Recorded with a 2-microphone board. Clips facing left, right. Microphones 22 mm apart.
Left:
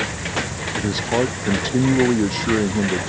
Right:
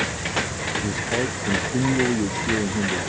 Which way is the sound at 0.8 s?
80° left.